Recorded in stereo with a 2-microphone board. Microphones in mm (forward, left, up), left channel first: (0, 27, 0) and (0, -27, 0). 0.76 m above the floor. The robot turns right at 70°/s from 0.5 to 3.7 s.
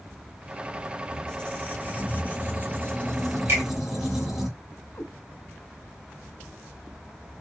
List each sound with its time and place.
1.1 s a squeak: 20° left, 0.9 m; by 4.5 s 160° right, 0.9 m
3.5 s a finger snap: 45° right (ahead or behind), 1.4 m; by 3.6 s 40° right (ahead or behind), 1.4 m
5.0 s a cat meowing: 50° left (ahead or behind), 0.7 m